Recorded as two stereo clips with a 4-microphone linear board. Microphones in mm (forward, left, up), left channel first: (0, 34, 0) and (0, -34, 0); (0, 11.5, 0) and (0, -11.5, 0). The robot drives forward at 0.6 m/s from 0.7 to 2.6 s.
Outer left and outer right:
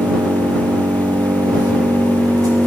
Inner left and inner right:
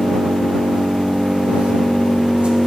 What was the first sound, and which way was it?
An engine running, 75° right (ahead or behind).